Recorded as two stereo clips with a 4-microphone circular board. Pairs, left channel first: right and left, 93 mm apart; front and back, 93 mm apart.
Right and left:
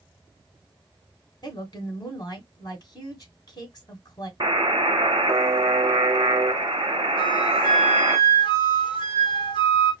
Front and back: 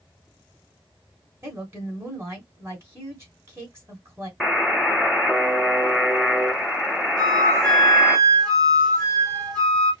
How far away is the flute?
About 3 m.